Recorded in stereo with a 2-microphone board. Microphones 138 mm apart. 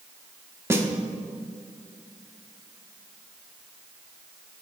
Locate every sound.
0.7 s a snare drum: 20° right (ahead or behind), 0.9 m